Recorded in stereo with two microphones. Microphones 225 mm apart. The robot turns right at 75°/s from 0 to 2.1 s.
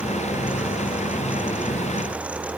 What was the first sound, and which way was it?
Only background noise.